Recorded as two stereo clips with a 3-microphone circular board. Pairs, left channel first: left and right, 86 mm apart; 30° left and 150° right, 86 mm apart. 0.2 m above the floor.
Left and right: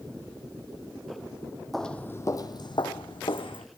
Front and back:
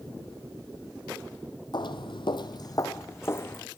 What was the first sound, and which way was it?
Footsteps, 5° left.